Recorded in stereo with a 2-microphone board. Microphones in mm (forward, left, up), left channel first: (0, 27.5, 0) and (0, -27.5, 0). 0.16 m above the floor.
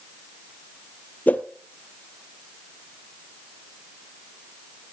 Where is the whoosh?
30° left (ahead or behind), 0.8 m.